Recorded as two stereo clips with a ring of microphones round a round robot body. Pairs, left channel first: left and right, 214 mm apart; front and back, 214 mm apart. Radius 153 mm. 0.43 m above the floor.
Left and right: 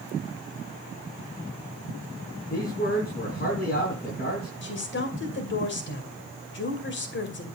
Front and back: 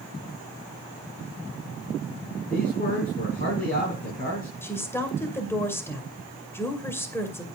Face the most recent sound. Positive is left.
turn(degrees=80)